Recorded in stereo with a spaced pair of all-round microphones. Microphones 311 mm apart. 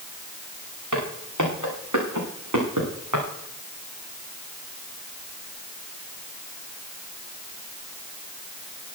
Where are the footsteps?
75° right (ahead or behind), 7 m.